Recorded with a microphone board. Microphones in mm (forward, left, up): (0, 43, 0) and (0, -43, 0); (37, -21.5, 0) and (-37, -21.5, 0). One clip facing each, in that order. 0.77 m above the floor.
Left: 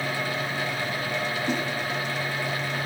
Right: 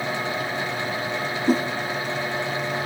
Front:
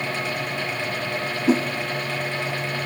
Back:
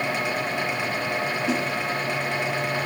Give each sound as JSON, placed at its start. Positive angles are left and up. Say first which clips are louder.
{"t": 1.5, "sound": "a whoosh", "louder": "right 10 dB, front 9 dB", "azimuth_deg": -45, "distance_m": 0.5}